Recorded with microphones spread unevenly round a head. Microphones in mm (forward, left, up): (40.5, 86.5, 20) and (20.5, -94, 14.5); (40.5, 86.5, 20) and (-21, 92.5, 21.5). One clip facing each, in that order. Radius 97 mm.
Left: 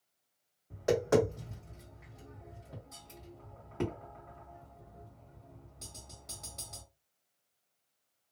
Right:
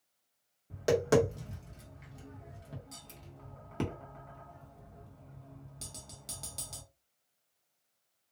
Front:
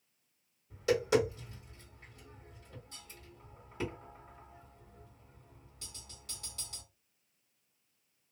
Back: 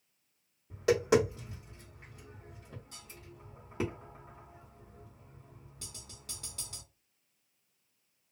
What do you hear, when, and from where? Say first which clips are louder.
0.7 s tapping: right 1 dB, back 3 dB; 140° right, 1.2 m